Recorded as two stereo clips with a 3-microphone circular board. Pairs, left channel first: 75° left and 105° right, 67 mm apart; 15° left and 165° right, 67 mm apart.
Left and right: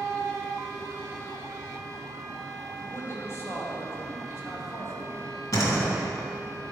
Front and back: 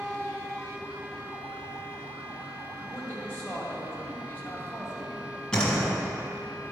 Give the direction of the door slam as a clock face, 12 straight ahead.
9 o'clock.